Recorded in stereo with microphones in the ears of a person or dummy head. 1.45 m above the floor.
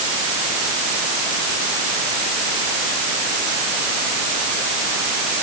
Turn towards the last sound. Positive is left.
No sound to turn to.